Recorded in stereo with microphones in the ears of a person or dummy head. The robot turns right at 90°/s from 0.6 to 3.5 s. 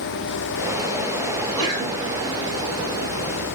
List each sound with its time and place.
1.4 s a sneeze: 90° right, 5.5 m; by 2.1 s 25° right, 5.5 m